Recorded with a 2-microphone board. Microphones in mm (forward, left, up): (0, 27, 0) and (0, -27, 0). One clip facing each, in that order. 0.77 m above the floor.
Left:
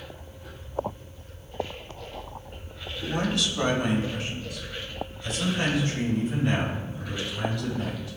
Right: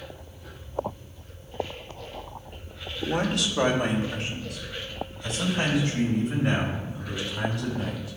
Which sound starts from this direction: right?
A man speaking, at 3.0 s.